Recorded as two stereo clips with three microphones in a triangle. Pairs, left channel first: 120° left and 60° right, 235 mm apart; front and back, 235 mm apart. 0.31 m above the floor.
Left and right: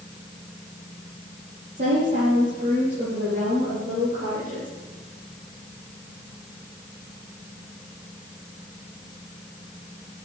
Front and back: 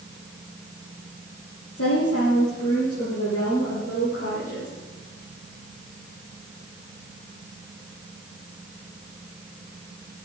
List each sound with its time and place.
1.8 s a woman speaking: 15° right, 9.5 m; by 4.7 s 30° right, 10 m